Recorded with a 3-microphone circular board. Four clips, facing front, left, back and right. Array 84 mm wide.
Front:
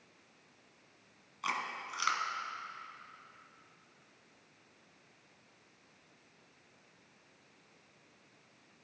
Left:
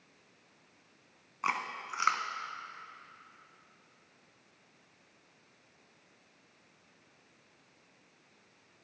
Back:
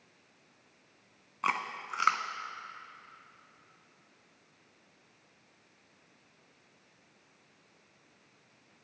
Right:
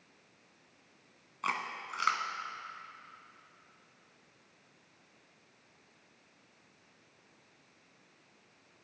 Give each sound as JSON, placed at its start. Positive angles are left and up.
{"t": 1.4, "sound": "chewing", "azimuth_deg": 165, "distance_m": 0.8}